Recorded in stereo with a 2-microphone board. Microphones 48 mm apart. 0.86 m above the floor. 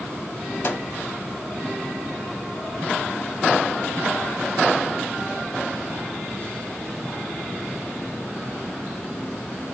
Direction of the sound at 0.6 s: 45° left (ahead or behind).